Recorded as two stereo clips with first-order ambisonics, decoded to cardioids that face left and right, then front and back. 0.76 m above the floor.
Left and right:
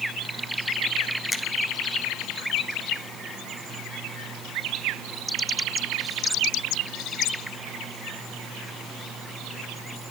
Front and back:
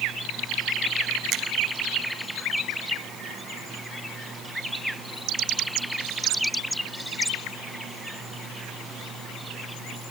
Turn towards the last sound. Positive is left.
turn(degrees=170)